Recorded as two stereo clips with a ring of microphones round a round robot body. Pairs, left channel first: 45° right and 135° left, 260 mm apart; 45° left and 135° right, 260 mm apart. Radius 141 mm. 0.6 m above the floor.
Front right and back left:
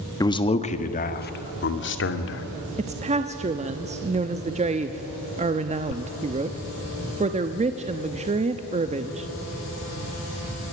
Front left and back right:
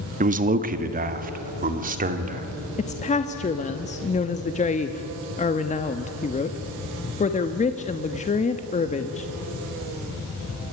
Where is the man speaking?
110° right, 1.1 m; by 2.5 s 80° right, 2 m.